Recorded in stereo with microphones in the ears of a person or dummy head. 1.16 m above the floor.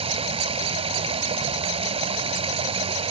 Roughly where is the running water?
Right.